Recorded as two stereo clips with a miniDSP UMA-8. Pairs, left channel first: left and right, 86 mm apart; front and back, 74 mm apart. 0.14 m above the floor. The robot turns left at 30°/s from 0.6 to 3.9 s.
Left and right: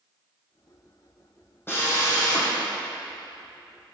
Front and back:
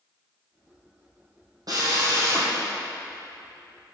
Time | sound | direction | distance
1.7 | a drill | 150° left | 2 m